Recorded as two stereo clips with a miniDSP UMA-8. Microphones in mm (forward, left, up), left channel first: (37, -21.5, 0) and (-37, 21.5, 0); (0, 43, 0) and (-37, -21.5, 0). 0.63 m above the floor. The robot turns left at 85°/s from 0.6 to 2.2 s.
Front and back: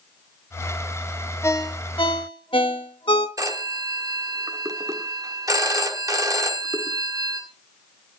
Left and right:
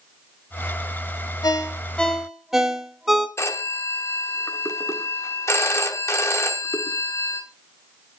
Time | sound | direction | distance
1.4 | a ringtone | 30° left | 1.1 m
3.4 | a phone ringing | 110° left | 1.2 m